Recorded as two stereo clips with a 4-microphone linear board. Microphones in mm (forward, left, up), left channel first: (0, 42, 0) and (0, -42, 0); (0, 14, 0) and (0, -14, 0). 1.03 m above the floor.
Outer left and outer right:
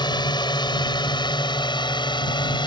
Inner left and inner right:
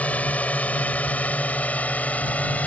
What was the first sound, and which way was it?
A drone, 65° left (ahead or behind).